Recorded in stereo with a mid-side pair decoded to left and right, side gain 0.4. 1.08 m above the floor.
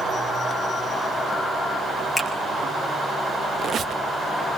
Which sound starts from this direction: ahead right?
A squeak, at 3.6 s.